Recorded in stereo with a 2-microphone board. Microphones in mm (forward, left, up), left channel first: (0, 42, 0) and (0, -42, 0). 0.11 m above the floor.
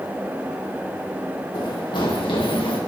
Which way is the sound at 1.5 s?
55° left (ahead or behind).